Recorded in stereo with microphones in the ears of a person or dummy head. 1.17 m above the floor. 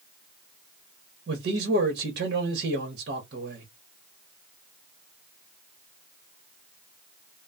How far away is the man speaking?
About 1.1 m.